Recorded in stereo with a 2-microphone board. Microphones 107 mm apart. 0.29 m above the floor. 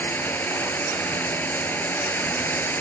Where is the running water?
20° left (ahead or behind).